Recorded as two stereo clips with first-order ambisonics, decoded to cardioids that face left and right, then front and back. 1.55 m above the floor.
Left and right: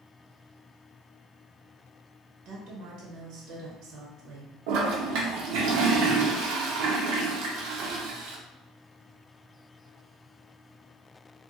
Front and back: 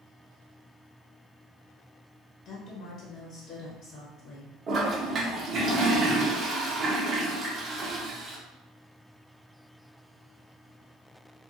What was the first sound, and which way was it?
A woman speaking, 55° right.